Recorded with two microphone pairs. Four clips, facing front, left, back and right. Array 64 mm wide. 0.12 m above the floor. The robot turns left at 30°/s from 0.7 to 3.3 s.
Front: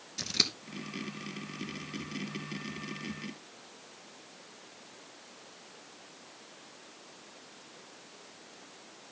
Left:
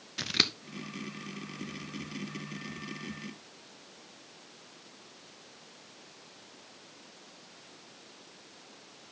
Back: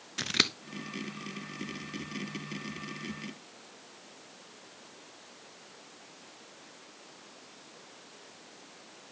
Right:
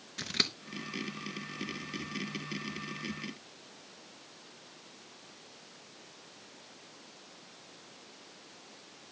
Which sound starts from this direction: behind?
Scissors, at 0.2 s.